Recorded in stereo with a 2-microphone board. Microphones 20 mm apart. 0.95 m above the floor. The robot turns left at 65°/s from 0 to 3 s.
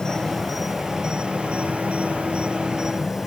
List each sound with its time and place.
0.0 s an insect: 30° left; by 3.3 s 165° right